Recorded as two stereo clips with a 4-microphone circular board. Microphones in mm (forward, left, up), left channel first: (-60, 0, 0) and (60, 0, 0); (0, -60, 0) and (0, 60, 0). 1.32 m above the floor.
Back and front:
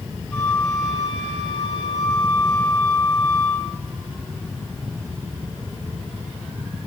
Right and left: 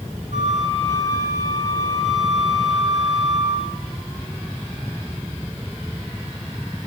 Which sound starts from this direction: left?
A flute, at 0.3 s.